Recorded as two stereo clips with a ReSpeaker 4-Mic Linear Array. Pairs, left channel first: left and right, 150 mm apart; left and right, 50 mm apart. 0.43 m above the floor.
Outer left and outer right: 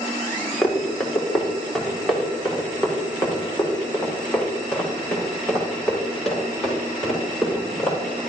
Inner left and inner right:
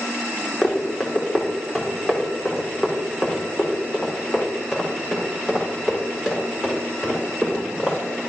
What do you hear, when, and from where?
0.6 s running footsteps: 5° left (ahead or behind), 3.5 m; by 8.2 s centre (ahead or behind), 7.5 m